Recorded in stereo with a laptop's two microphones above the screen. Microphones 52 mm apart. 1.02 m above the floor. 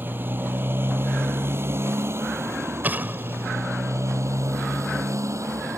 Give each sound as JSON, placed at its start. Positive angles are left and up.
{"t": 0.0, "sound": "a motorcycle", "side_deg": -45}
{"t": 2.8, "sound": "an explosion", "side_deg": -40}